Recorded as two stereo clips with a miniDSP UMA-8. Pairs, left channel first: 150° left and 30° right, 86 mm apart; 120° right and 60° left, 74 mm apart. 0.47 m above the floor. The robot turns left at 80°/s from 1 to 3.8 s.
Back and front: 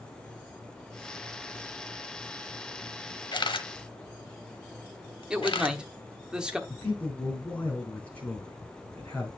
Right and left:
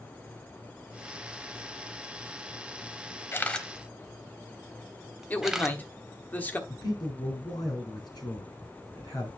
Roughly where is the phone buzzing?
No phone buzzing in this recording.